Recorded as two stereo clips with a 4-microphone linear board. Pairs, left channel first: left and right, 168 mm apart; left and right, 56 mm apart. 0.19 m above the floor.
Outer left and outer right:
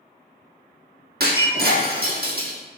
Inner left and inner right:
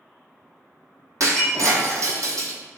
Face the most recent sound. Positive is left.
turn(degrees=-70)  # may be behind; listen again after turning